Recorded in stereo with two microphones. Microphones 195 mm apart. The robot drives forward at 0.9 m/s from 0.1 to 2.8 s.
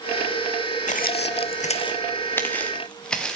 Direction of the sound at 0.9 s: 45° left (ahead or behind).